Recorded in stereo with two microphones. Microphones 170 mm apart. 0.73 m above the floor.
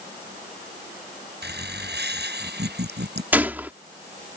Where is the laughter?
75° right (ahead or behind).